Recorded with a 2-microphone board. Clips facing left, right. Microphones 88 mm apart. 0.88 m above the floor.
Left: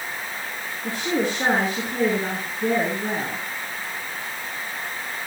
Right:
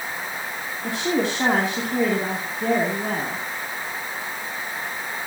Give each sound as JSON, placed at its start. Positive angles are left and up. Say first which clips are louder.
{"t": 0.8, "sound": "a woman speaking", "louder": "right 1 dB", "side_deg": -80, "distance_m": 4.0}